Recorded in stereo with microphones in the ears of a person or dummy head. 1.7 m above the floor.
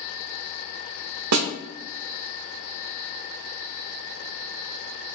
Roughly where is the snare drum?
Right.